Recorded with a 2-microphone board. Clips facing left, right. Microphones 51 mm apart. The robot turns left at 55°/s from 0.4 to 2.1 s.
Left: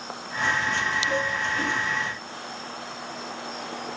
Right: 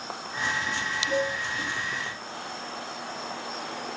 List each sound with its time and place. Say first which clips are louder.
1.1 s dishes clattering: left 1 dB; 25° left (ahead or behind), 4 m; by 1.4 s 10° left (ahead or behind), 4 m